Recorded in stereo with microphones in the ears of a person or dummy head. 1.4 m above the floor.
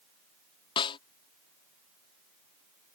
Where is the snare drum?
25° left (ahead or behind).